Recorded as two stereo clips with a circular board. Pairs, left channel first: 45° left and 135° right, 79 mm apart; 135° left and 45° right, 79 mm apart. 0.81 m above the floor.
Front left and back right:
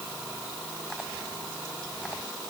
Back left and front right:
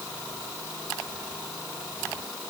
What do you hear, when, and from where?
Only background noise.